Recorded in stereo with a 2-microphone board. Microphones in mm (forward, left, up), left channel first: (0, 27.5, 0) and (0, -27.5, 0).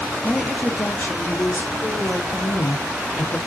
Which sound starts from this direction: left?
A woman speaking, at 2.3 s.